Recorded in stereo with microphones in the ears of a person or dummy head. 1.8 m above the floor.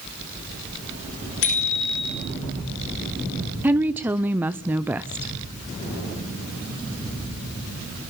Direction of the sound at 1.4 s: 75° left (ahead or behind).